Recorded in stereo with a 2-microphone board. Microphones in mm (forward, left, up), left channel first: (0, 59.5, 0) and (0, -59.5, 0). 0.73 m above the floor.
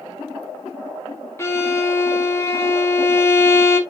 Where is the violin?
20° left (ahead or behind), 0.8 m.